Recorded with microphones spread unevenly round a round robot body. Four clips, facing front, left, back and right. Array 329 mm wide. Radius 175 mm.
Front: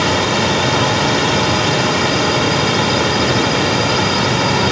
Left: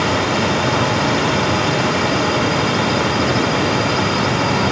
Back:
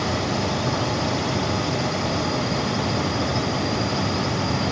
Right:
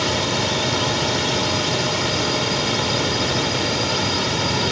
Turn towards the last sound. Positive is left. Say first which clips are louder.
# left 5 dB, front 8 dB
turn(degrees=15)